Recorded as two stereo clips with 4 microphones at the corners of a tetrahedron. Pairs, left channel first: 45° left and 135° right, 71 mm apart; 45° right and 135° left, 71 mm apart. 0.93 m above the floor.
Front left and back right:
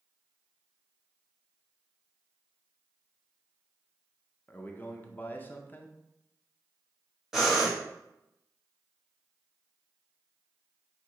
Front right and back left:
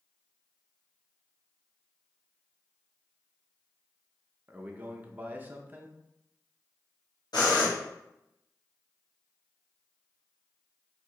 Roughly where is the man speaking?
Left.